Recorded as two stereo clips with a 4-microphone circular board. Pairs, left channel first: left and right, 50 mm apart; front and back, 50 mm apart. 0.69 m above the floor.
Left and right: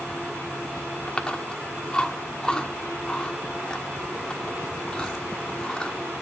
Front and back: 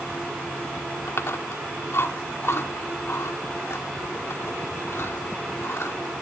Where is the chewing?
20° left, 1.5 m.